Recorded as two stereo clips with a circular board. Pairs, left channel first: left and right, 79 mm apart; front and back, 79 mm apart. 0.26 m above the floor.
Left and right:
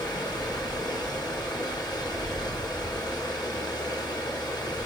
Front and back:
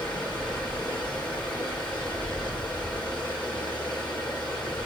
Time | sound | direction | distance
0.0 | running water | 75° left | 3.5 m